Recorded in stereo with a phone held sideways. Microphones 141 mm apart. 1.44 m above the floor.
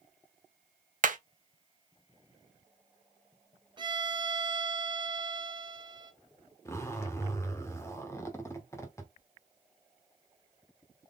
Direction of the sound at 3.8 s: 35° right (ahead or behind).